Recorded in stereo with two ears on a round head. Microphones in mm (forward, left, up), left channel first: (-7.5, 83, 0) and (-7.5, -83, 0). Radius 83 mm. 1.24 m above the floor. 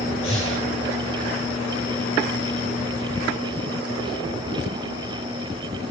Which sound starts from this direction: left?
Breathing, at 0.2 s.